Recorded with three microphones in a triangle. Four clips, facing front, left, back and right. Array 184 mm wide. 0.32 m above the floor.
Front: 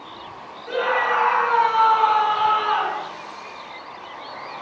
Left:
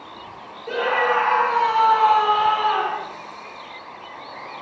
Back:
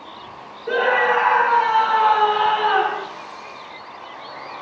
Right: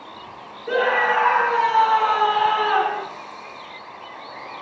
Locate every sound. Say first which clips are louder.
0.7 s a scream: right 1 dB, back 3 dB; 170° left, 6 m